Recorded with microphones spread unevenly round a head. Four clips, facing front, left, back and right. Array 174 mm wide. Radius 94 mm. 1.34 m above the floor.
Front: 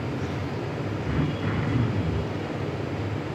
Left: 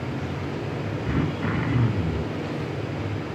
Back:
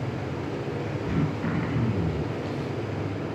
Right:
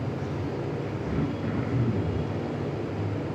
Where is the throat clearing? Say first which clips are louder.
Left 4 dB, even; 85° left, 2.5 m.